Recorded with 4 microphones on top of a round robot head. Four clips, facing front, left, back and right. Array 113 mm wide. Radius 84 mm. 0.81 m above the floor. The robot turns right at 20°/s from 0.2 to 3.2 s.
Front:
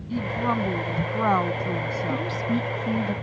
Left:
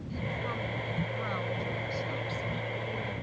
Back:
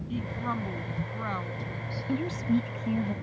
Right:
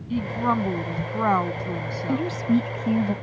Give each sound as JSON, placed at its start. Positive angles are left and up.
{"t": 0.1, "sound": "a woman speaking", "azimuth_deg": -75}
{"t": 2.1, "sound": "a woman speaking", "azimuth_deg": -105}